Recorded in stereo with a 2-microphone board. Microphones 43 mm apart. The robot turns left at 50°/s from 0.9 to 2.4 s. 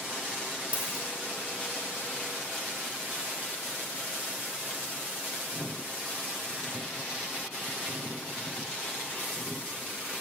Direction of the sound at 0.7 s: 30° right (ahead or behind).